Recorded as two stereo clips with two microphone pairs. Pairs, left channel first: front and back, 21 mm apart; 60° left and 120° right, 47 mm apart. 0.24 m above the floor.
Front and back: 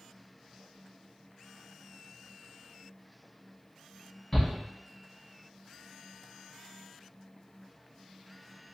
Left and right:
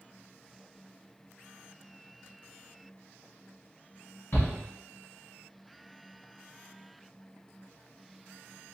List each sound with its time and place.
4.3 s a shout: 55° left, 1.5 m